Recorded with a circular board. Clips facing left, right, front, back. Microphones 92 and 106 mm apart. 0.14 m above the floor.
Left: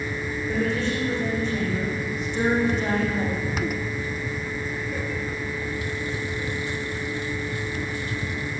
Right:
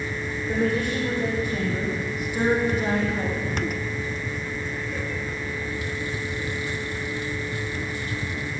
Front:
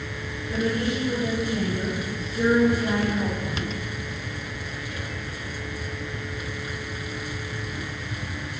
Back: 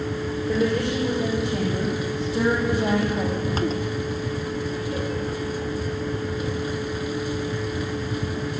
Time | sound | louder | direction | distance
0.5 | a woman speaking | right 2 dB, back 2 dB | 165° right | 7.5 m